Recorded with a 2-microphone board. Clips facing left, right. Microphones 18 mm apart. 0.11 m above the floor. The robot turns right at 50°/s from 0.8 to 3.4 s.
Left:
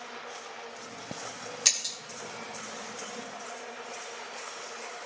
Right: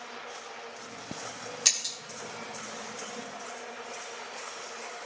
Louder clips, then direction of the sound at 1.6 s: Even; 10° left (ahead or behind).